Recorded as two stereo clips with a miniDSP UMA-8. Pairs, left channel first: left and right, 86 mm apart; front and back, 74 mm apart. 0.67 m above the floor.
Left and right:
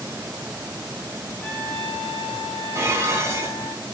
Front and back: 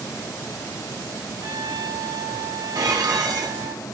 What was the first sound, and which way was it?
A trumpet, 165° left.